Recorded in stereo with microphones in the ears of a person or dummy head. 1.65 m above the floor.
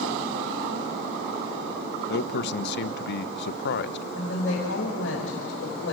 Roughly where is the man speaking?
Left.